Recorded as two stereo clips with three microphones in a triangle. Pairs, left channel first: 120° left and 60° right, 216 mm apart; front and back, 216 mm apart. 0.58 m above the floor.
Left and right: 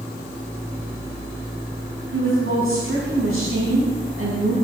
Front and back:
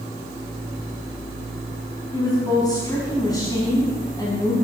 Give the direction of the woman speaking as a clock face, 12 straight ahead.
2 o'clock.